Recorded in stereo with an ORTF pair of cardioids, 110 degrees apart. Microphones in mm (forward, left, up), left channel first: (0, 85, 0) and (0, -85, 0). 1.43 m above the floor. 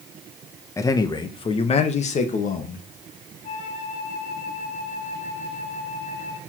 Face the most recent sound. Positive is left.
turn(degrees=45)